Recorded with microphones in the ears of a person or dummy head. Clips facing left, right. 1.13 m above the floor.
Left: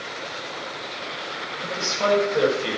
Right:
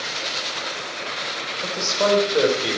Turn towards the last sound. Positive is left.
turn(degrees=-50)  # may be behind; listen again after turning